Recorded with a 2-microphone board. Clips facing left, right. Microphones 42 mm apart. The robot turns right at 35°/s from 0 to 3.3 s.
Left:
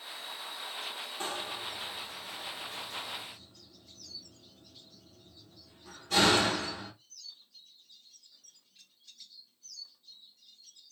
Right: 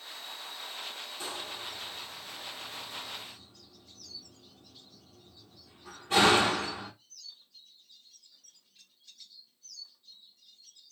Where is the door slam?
40° left (ahead or behind), 1.3 m; by 6.9 s 25° right (ahead or behind), 1.3 m.